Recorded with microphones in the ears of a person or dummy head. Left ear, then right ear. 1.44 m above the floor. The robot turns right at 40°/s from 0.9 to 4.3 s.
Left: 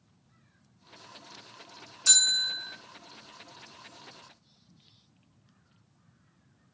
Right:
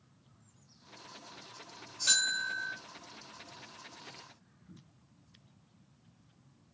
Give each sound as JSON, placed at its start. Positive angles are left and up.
{"t": 2.1, "sound": "a bell", "side_deg": 50, "distance_m": 2.0}